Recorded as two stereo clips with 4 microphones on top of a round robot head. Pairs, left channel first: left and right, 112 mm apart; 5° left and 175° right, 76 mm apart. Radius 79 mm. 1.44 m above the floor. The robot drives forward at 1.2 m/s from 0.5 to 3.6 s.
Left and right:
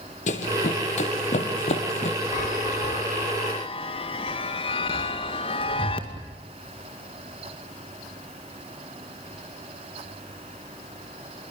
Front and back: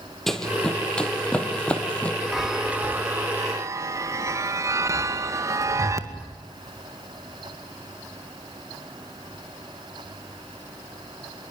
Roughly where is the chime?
Left.